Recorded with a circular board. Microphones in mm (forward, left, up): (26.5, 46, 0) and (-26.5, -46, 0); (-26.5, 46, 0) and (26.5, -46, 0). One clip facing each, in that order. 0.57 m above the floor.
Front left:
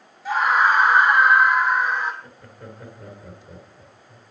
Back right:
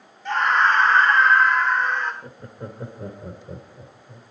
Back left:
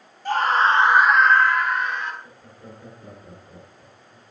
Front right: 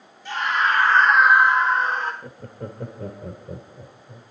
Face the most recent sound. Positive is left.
turn(degrees=-60)